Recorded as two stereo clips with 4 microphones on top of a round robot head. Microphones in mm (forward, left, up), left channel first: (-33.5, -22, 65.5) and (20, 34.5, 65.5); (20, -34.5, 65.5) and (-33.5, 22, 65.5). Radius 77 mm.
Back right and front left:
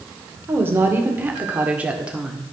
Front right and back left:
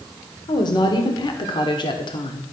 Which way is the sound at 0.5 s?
15° right.